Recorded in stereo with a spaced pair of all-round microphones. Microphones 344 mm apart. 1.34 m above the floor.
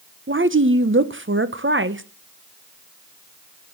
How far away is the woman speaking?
About 0.9 m.